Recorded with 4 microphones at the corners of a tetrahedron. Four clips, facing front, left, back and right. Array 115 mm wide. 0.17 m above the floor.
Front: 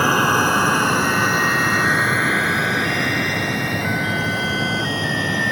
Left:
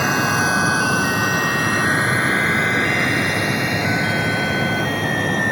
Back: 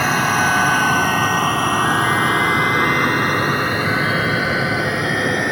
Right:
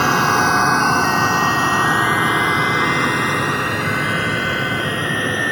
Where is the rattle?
No rattle in this recording.